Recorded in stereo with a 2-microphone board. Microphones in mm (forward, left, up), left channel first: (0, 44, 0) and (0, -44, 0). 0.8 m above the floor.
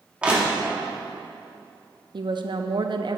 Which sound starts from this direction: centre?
Crushing, at 0.2 s.